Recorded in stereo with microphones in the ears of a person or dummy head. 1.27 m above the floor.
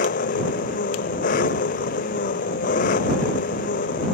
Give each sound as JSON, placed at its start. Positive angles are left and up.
{"t": 0.0, "sound": "an engine running", "side_deg": 45}